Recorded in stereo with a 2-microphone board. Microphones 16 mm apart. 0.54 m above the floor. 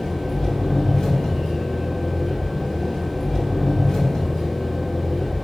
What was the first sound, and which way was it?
An engine running, 50° left (ahead or behind).